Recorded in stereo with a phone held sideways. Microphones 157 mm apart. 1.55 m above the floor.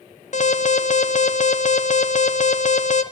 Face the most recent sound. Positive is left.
turn(degrees=55)  # may be behind; listen again after turning